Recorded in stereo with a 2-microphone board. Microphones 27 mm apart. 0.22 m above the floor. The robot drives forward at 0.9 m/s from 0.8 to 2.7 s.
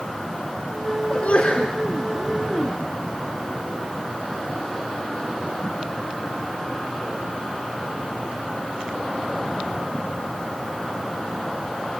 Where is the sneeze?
45° left (ahead or behind), 3 m; by 1.8 s 50° left (ahead or behind), 3 m.